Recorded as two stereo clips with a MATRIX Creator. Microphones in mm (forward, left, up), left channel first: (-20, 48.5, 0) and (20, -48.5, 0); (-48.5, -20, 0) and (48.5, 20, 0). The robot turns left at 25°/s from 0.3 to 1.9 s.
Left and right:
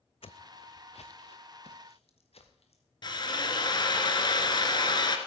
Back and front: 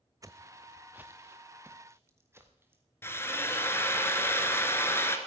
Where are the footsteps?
80° left, 0.6 m; by 2.8 s 90° left, 2.5 m.